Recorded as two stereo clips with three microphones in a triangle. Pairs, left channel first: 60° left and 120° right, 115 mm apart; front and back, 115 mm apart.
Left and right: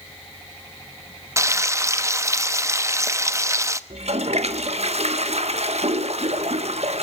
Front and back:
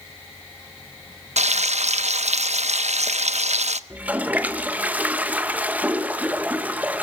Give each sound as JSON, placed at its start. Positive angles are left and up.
{"t": 1.4, "sound": "frying", "azimuth_deg": 175, "distance_m": 0.8}
{"t": 3.9, "sound": "a toilet flushing", "azimuth_deg": -105, "distance_m": 1.3}